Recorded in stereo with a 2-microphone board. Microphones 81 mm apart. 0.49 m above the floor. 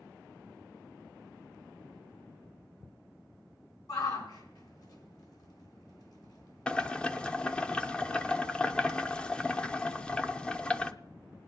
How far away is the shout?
About 4 m.